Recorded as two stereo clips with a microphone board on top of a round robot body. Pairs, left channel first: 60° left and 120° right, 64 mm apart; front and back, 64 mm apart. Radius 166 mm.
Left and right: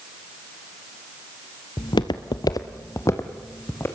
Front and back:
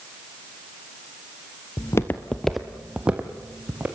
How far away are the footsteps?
About 0.6 m.